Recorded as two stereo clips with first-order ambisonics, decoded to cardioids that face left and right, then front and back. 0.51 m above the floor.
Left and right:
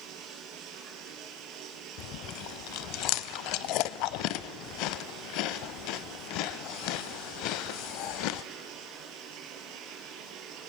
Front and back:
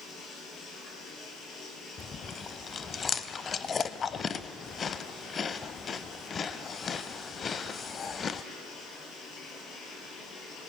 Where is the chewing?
65° left, 0.6 m.